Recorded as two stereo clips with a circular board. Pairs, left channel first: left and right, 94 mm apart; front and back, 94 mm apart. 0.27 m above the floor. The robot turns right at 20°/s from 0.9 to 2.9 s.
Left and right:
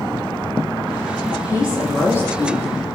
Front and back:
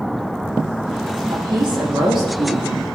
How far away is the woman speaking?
About 7.5 m.